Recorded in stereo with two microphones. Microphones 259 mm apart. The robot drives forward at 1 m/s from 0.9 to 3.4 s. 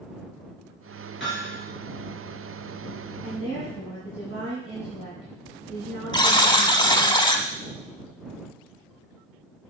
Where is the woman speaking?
60° left (ahead or behind), 2.5 m; by 7.1 s 55° left (ahead or behind), 2.5 m.